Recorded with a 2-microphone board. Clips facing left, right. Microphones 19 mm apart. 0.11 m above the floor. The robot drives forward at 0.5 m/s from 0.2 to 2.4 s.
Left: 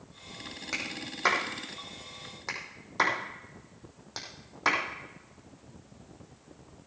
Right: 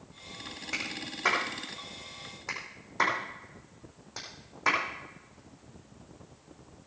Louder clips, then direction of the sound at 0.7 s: Even; 60° left (ahead or behind).